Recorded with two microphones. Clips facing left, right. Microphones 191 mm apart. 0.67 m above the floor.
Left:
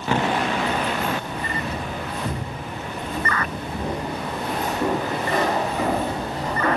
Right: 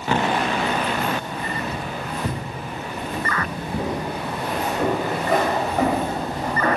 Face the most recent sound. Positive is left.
turn(degrees=-40)  # may be behind; listen again after turning